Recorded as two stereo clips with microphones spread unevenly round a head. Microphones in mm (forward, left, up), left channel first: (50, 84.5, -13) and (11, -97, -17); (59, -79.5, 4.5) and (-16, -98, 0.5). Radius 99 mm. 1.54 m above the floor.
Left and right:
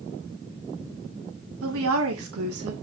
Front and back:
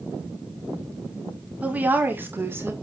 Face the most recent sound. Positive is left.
turn(degrees=-110)